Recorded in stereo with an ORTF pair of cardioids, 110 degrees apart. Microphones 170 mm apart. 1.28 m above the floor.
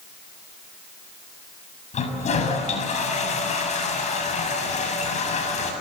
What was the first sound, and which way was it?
A toilet flushing, 45° left.